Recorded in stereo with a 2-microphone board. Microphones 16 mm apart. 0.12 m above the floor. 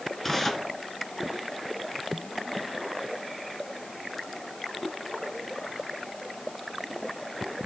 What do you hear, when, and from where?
0.2 s tearing paper: 15° left (ahead or behind), 1.5 m